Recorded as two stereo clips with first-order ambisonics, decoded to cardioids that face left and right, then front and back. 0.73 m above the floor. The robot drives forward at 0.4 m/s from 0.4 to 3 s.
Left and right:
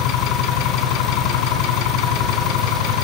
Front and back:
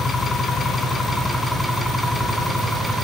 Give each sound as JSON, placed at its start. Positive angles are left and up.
{"t": 0.0, "sound": "an engine running", "azimuth_deg": 80, "distance_m": 3.0}